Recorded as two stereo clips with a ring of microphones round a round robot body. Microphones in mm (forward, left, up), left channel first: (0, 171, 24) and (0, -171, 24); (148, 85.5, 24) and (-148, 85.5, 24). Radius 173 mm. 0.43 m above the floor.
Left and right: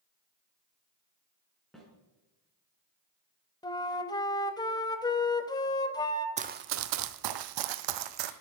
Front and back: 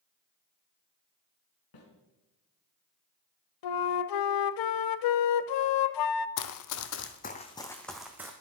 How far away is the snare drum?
About 4.5 m.